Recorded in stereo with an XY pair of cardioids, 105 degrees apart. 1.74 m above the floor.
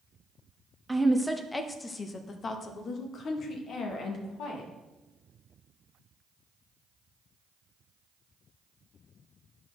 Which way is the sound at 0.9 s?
5° right.